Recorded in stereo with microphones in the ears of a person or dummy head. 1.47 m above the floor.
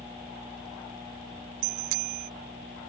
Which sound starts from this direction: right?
A bicycle bell, at 1.6 s.